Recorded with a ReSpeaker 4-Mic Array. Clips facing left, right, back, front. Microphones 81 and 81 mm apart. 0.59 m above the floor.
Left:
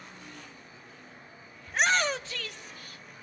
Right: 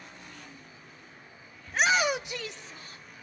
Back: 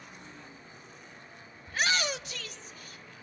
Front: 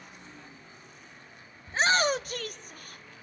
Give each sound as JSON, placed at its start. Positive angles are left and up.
{"t": 1.7, "sound": "a shout", "azimuth_deg": 10, "distance_m": 0.6}